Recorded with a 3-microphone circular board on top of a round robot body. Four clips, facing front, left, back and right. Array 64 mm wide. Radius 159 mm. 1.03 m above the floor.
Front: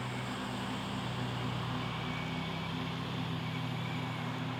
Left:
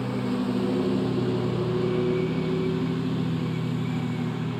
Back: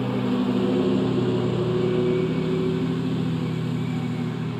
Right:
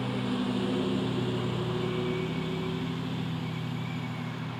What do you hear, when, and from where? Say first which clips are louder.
0.0 s a lawn mower: left 3 dB, back 15 dB; 170° left; by 4.6 s 150° left